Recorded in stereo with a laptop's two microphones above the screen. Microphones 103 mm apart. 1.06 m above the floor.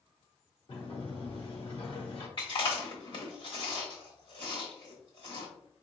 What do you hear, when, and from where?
0.7 s a sliding door: 55° left (ahead or behind), 1.1 m
2.4 s chewing: 50° left (ahead or behind), 1.2 m